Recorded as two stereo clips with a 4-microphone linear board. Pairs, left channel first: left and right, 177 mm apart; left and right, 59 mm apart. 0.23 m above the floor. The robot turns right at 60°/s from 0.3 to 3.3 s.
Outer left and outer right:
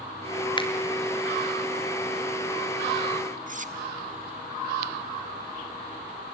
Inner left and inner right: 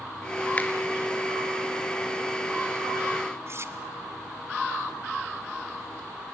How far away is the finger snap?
About 3 m.